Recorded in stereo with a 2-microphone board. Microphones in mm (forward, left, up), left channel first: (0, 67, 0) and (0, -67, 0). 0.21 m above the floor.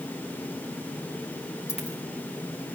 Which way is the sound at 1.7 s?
55° left (ahead or behind).